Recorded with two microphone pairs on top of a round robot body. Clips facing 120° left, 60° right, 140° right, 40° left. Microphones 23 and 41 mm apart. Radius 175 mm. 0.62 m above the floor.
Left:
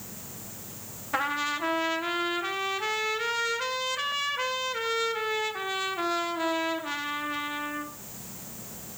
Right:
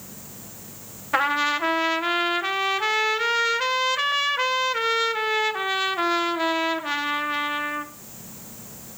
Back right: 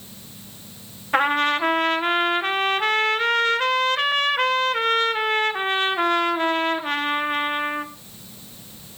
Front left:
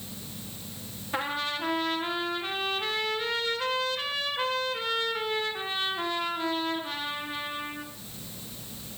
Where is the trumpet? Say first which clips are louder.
Right 7 dB, back right 11 dB; 120° right, 2.0 m.